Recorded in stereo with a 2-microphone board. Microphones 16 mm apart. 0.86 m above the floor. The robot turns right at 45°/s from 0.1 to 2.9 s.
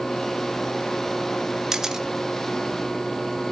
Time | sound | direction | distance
1.7 | a camera shutter | 35° right (ahead or behind) | 1.0 m